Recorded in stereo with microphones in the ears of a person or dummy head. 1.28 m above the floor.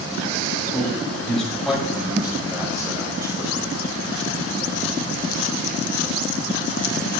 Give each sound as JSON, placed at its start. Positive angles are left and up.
{"t": 0.7, "sound": "a man speaking", "side_deg": 5, "distance_m": 6.5}